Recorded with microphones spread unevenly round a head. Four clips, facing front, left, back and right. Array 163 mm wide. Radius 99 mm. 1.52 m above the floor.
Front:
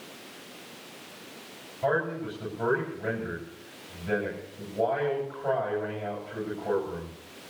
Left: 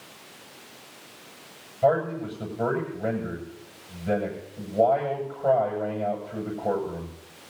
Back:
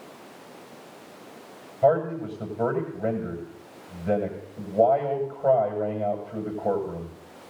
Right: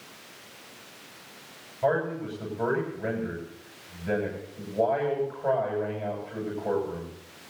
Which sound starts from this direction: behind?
A man speaking, at 1.8 s.